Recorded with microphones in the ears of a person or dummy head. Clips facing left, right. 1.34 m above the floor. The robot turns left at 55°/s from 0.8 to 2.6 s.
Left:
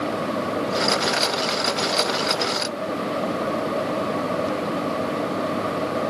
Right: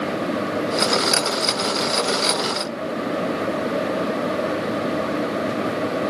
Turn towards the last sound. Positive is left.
No sound to turn to.